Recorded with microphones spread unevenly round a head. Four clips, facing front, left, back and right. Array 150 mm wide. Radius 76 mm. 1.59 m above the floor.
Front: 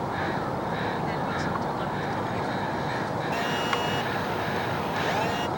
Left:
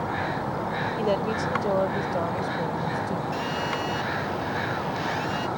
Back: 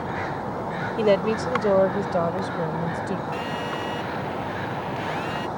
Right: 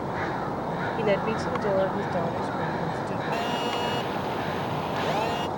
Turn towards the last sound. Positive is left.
turn(degrees=-65)